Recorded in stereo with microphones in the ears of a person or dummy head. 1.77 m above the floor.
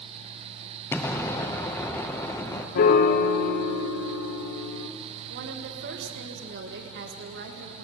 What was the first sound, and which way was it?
An explosion, 15° left (ahead or behind).